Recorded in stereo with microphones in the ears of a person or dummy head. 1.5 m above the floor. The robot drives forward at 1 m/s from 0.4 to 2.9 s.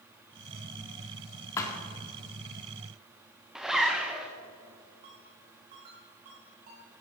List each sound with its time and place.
1.6 s a thud: 15° left (ahead or behind), 1.8 m; by 1.8 s 20° left (ahead or behind), 1.6 m
3.5 s a zipper: centre (ahead or behind), 1.2 m
5.0 s a ringtone: 45° right (ahead or behind), 5.5 m